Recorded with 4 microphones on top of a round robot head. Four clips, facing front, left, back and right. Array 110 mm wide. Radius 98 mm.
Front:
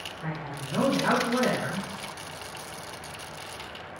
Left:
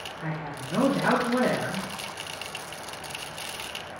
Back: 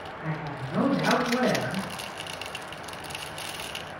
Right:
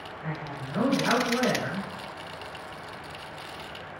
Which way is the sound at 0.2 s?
85° left.